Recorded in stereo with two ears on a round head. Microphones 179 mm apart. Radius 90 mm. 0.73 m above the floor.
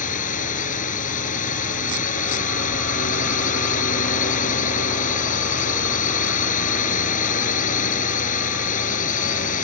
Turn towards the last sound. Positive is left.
turn(degrees=40)  # may be behind; listen again after turning